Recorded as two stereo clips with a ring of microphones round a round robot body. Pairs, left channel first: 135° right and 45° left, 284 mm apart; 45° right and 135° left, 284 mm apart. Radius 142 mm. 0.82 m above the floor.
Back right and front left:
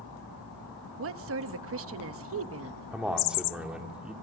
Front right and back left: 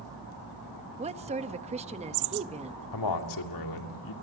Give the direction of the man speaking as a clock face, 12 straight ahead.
1 o'clock.